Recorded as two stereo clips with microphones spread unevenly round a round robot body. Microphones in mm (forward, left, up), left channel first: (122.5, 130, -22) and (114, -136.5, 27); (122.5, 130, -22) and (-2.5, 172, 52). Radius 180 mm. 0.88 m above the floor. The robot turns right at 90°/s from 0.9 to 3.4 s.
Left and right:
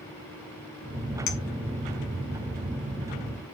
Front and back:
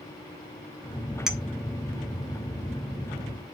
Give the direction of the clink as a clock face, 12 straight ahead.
10 o'clock.